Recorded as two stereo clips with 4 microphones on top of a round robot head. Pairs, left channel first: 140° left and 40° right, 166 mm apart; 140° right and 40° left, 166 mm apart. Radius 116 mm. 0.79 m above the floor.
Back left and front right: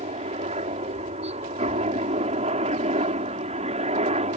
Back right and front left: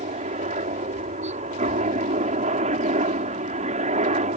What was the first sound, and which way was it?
A helicopter, 5° left.